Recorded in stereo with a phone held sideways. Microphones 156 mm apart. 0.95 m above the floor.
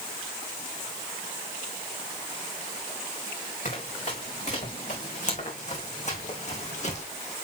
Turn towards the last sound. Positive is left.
turn(degrees=45)  # may be behind; listen again after turning